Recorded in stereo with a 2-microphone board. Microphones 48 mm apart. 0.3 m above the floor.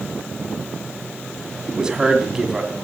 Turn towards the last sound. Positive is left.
turn(degrees=-15)  # may be behind; listen again after turning